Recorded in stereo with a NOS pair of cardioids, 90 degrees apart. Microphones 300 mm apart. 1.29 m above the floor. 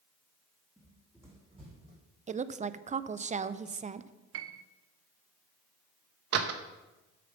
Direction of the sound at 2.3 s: 25° right.